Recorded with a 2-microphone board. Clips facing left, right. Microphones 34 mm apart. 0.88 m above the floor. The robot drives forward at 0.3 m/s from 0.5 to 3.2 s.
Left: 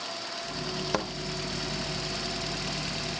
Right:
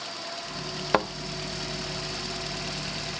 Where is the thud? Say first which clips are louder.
Right 7 dB; 30° right (ahead or behind), 0.7 m.